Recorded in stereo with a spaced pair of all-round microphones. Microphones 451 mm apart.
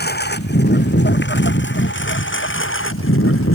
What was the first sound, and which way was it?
A lawn mower, 20° left (ahead or behind).